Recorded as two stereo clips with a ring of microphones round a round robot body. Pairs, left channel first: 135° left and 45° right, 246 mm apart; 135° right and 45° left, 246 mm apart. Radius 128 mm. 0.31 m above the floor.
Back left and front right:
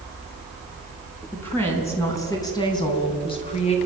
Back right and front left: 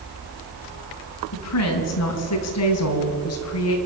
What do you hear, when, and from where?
1.3 s a woman speaking: 145° right, 4 m; by 3.8 s 160° right, 3.5 m